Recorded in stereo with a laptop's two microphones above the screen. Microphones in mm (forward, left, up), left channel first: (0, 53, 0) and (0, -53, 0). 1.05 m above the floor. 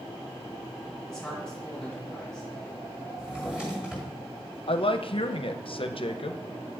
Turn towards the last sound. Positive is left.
turn(degrees=55)  # may be behind; listen again after turning